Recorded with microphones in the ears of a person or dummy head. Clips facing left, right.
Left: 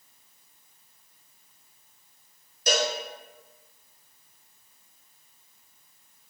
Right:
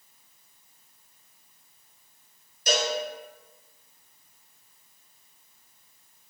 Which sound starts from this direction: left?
A cowbell, at 2.7 s.